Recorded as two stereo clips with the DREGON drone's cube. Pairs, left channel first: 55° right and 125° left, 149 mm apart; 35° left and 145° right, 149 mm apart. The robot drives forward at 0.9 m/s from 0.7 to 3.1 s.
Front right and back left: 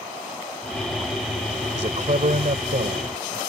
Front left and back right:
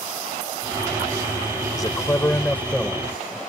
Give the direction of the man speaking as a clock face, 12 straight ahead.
9 o'clock.